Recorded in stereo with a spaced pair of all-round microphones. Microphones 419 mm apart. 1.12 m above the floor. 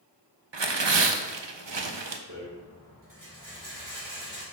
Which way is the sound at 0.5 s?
75° right (ahead or behind).